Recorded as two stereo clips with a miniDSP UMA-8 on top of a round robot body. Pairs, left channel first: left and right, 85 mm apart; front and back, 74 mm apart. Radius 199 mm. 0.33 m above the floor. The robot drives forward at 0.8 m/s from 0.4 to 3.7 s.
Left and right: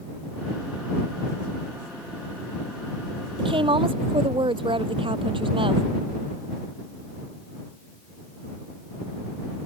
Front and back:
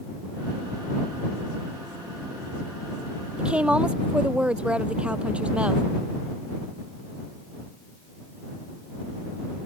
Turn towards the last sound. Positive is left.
turn(degrees=-105)